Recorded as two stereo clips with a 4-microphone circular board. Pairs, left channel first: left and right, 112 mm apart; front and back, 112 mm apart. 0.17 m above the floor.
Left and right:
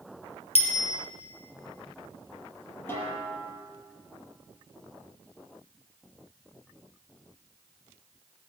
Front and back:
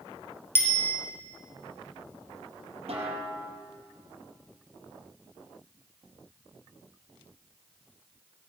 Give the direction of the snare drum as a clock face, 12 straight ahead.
7 o'clock.